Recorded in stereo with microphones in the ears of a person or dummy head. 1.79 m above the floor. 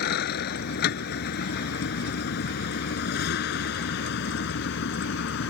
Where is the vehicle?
60° left (ahead or behind); by 5.5 s 70° left (ahead or behind).